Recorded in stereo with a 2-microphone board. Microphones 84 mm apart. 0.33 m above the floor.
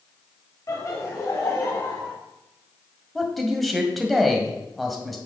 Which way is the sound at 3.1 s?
Centre (ahead or behind).